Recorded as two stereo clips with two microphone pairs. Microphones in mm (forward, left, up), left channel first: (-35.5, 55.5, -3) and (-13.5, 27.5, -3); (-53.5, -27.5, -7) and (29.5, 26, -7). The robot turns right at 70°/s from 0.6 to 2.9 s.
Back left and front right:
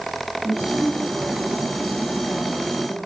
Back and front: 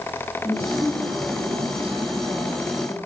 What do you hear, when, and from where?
0.4 s a woman speaking: 45° right, 7.5 m; by 3.0 s 115° left, 7.5 m